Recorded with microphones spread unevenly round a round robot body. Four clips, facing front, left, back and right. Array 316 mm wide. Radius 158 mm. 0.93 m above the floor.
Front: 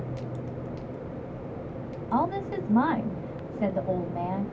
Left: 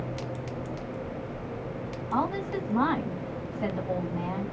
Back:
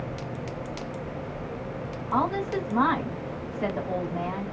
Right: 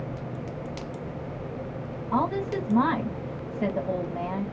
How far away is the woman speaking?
About 2 m.